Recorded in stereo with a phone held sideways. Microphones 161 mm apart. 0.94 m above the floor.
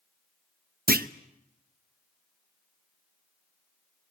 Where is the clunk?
70° right (ahead or behind), 0.8 m.